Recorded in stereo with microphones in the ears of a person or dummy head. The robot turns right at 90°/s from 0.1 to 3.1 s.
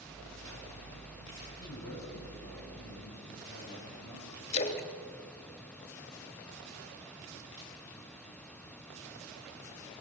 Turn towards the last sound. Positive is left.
turn(degrees=30)  # may be behind; listen again after turning